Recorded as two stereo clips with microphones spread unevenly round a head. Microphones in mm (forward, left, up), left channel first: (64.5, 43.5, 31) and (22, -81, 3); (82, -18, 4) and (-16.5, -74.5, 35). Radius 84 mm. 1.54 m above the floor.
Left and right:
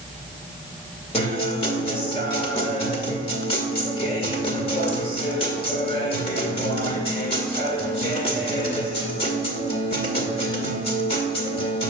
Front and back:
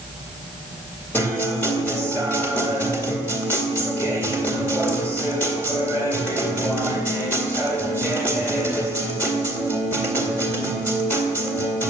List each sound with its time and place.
1.1 s a guitar: 115° left, 2 m